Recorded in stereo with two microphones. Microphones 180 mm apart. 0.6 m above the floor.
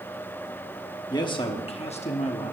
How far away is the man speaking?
About 1.1 m.